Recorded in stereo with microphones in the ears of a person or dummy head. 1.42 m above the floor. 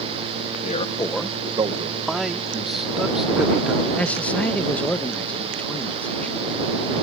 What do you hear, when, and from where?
0.6 s a man speaking: 45° left (ahead or behind); by 2.0 s 30° right (ahead or behind)
2.1 s a man speaking: centre (ahead or behind)
4.0 s a man speaking: 10° left (ahead or behind)